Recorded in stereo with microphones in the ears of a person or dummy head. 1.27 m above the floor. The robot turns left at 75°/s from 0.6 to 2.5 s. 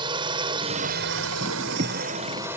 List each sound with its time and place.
0.0 s a drone: 25° right; by 2.6 s 170° right